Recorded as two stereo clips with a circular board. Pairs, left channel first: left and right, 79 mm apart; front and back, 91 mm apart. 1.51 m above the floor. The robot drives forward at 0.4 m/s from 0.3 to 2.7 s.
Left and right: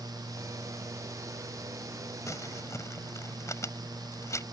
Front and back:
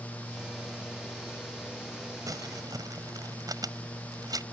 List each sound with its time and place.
2.3 s crumpling: 135° left